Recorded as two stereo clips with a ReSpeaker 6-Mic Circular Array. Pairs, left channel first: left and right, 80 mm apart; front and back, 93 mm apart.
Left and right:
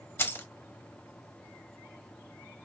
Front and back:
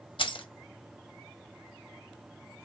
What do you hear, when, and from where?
0.2 s keys jangling: 30° left, 0.9 m